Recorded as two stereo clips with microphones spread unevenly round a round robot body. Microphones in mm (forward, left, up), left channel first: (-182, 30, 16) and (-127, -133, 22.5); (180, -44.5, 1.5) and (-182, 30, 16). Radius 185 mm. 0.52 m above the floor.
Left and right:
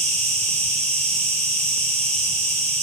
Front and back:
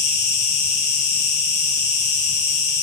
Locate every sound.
0.0 s an insect: 30° right, 1.6 m